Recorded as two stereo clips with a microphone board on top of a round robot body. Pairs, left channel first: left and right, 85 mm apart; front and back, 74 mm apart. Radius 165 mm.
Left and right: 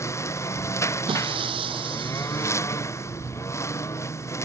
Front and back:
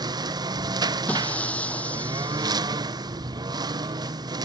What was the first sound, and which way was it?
A lawn mower, 150° left.